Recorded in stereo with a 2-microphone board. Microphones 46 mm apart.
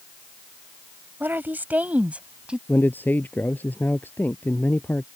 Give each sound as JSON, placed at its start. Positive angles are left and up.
{"t": 1.2, "sound": "a woman speaking", "side_deg": -50}
{"t": 2.7, "sound": "a man speaking", "side_deg": 40}